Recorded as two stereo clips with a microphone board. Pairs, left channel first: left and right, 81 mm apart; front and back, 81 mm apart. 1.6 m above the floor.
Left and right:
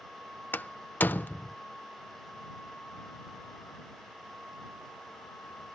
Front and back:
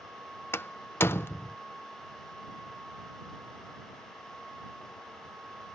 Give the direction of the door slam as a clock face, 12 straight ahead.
11 o'clock.